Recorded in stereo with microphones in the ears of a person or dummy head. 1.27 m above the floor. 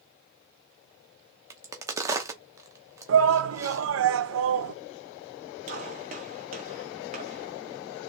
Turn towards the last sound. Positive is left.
turn(degrees=-45)  # may be behind; listen again after turning